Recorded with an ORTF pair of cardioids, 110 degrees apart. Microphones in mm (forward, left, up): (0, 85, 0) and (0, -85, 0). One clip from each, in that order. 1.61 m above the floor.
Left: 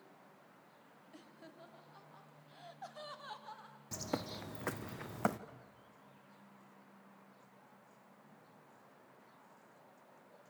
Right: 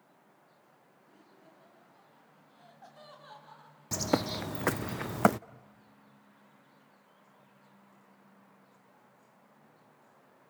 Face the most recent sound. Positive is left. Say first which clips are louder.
# right 1 dB
turn(degrees=-10)